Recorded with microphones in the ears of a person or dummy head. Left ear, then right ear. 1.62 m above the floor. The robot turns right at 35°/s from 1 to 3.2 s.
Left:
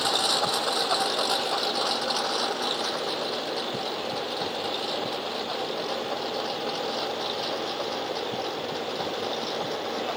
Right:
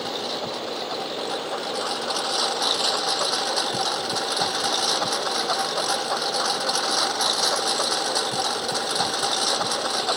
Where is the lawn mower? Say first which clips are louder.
Left 4 dB; 45° left (ahead or behind); by 10.2 s 45° right (ahead or behind).